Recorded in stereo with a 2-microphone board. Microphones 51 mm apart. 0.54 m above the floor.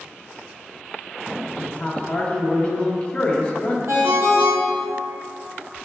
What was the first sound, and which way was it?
A man speaking, 25° left (ahead or behind).